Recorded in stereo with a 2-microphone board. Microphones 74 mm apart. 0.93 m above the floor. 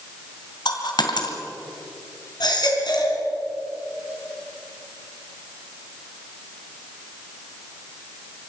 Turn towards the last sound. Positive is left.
turn(degrees=70)  # may be behind; listen again after turning